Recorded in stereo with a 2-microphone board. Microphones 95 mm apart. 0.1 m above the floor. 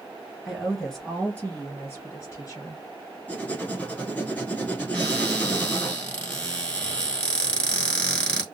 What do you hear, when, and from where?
0.5 s a woman speaking: 5° right (ahead or behind), 1.6 m; by 2.8 s 35° left (ahead or behind), 1.8 m
3.3 s writing: 15° left (ahead or behind), 0.6 m
4.9 s a cupboard door: 15° left (ahead or behind), 1.1 m